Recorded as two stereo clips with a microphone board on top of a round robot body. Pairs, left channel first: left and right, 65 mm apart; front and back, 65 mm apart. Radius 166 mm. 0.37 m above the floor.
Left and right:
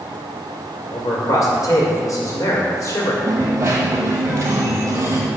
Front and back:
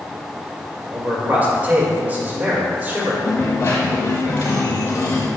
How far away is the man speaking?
About 2 m.